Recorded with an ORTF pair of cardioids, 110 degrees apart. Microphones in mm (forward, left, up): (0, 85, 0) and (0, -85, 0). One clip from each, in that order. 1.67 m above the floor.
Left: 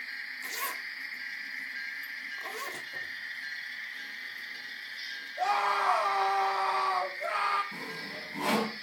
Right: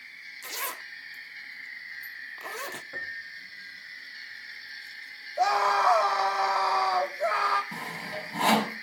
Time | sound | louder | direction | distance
0.4 | a zipper | right 2 dB | 20° right | 0.6 m
2.9 | a piano | right 1 dB | 55° right | 3 m
5.4 | a scream | right 4 dB | 60° right | 8.5 m
7.7 | sawing | right 3 dB | 65° right | 4.5 m